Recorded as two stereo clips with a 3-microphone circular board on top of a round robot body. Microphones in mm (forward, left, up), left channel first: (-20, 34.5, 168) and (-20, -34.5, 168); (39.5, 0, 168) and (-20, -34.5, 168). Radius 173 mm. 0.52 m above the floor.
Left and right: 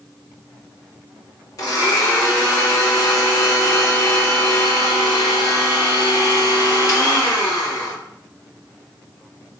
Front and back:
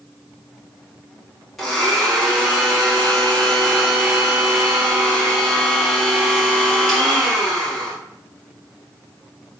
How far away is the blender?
About 2 m.